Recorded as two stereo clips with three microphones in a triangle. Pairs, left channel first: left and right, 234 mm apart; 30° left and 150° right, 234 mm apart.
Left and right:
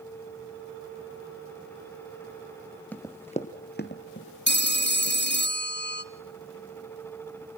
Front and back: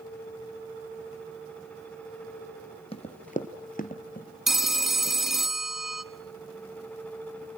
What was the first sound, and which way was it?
Running footsteps, 15° left.